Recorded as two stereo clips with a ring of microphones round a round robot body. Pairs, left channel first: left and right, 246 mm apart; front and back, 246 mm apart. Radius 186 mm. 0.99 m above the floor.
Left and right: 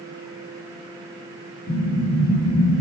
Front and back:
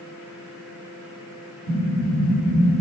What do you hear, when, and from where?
1.7 s an explosion: 25° left, 2.0 m